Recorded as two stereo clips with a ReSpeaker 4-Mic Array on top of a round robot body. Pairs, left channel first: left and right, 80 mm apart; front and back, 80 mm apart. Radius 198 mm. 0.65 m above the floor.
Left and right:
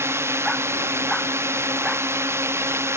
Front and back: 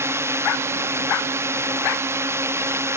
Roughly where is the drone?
Behind right.